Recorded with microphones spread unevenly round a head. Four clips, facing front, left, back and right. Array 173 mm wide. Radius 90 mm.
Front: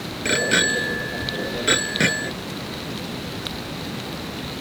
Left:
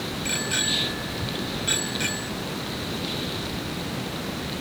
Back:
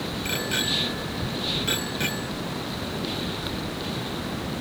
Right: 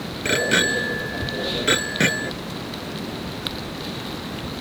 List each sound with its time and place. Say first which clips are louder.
0.2 s a bicycle bell: right 13 dB, front 11 dB; 50° right